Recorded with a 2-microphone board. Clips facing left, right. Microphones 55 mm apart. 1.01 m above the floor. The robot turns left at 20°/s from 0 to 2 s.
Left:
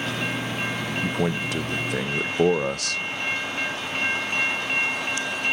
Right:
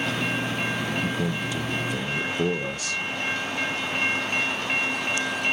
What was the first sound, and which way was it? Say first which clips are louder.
A man speaking: left 2 dB; 55° left (ahead or behind).